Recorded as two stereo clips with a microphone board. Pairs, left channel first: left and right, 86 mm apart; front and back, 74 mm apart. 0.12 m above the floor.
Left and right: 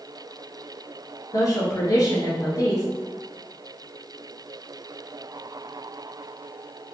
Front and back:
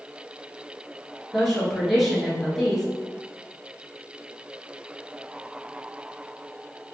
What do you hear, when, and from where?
1.3 s a woman speaking: 90° left, 1.5 m